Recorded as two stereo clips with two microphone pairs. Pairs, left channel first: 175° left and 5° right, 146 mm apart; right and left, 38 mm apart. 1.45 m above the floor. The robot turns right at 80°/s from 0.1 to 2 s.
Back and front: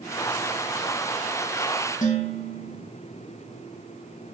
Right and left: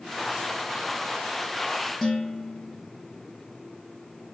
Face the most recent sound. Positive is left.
turn(degrees=-165)